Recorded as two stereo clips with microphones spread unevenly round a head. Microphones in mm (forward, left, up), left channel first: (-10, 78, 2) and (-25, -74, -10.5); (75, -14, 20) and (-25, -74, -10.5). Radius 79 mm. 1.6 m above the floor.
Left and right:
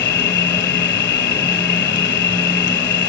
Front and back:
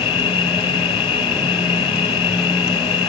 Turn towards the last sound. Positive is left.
turn(degrees=85)